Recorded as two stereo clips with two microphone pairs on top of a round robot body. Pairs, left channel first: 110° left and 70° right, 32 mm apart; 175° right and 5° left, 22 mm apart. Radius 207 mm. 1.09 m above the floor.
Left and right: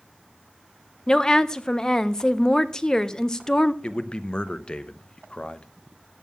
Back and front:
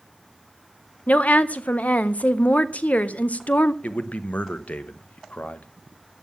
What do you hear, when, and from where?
1.1 s a woman speaking: 175° right, 0.8 m
3.8 s a man speaking: 175° left, 1.0 m